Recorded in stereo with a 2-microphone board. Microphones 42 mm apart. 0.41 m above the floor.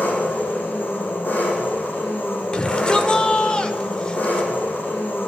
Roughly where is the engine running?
Left.